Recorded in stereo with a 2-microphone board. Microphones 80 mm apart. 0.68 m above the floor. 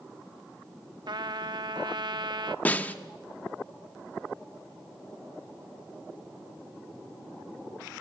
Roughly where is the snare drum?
Left.